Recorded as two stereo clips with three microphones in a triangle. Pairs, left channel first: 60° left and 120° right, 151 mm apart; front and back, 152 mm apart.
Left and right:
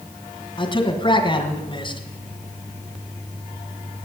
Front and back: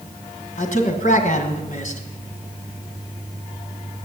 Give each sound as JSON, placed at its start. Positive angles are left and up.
{"t": 0.6, "sound": "a man speaking", "azimuth_deg": 10, "distance_m": 2.0}